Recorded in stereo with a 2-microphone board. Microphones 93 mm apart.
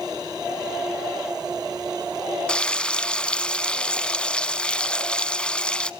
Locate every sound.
2.5 s frying: 10° left (ahead or behind), 0.6 m